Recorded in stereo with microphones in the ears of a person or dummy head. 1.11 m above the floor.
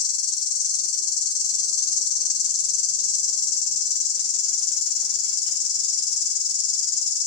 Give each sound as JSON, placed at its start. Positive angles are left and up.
{"t": 0.0, "sound": "an insect", "side_deg": 55, "distance_m": 0.7}